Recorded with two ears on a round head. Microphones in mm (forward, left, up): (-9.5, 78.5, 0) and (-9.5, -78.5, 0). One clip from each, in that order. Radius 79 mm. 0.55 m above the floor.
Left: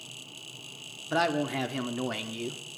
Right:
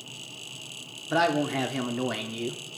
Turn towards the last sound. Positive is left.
turn(degrees=10)  # may be behind; listen again after turning